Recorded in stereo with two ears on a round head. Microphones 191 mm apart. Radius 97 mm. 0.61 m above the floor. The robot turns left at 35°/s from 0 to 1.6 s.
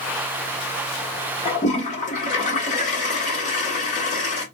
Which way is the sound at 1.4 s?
30° left (ahead or behind).